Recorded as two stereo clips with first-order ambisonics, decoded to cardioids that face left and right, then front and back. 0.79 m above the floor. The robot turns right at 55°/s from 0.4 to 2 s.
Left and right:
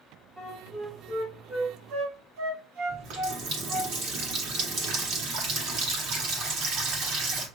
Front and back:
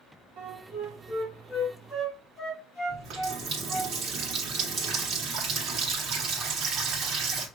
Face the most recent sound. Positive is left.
turn(degrees=-125)